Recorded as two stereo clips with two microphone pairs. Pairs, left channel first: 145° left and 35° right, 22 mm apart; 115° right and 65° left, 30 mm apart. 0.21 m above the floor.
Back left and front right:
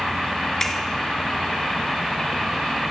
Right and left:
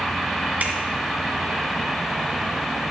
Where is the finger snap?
85° left, 2 m.